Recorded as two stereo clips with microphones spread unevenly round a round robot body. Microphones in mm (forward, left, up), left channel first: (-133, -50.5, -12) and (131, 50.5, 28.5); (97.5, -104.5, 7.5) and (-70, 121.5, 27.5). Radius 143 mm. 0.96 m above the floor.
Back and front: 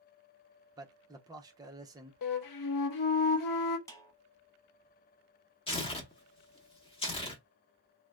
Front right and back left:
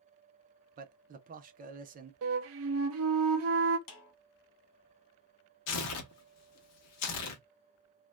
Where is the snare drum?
80° right, 0.9 m.